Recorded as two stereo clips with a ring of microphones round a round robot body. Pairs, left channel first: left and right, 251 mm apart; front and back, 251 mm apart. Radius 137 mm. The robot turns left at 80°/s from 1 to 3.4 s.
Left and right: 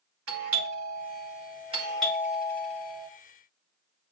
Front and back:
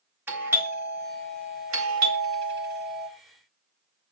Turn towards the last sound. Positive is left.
turn(degrees=70)